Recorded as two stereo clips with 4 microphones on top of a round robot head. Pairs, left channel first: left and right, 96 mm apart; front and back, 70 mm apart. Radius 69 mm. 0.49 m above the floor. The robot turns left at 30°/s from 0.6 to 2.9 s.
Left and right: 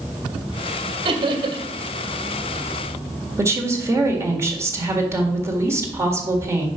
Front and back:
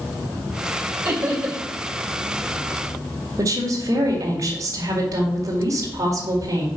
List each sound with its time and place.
1.1 s laughter: 105° right, 2 m; by 1.7 s 120° right, 2 m
3.4 s a woman speaking: 145° right, 1.8 m